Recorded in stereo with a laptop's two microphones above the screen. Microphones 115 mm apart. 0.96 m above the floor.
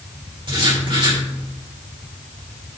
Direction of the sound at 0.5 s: 45° right (ahead or behind).